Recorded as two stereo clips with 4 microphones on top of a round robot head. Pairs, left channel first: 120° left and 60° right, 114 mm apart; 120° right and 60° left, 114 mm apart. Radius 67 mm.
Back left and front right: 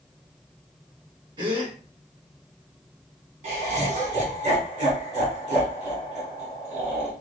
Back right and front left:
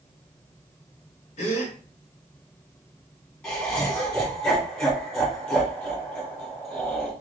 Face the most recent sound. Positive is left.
turn(degrees=-50)